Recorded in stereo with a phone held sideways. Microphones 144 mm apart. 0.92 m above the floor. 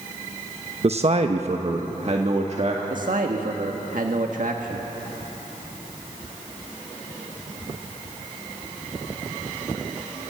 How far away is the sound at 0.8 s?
About 0.9 m.